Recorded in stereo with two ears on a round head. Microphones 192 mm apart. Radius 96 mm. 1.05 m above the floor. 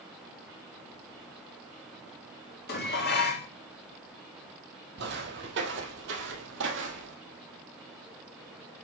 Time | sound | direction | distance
2.7 | dishes clattering | 50° left (ahead or behind) | 1.7 m
5.0 | footsteps | 55° right (ahead or behind) | 2 m